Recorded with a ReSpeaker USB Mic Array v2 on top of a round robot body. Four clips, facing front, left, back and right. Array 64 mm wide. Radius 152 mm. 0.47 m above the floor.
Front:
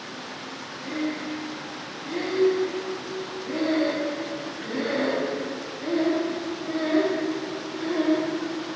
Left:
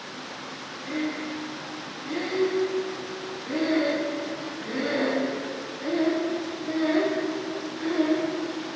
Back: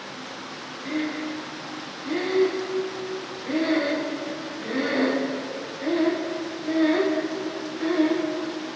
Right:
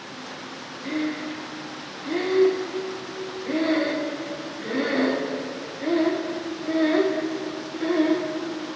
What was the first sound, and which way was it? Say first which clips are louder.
Breathing: right 2 dB, back 1 dB; 110° right.